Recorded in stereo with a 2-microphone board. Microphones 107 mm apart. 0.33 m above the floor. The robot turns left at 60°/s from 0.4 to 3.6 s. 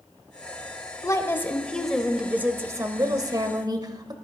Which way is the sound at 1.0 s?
55° left.